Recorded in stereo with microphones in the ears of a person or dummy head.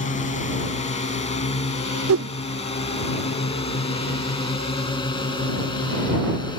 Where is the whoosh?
70° right (ahead or behind).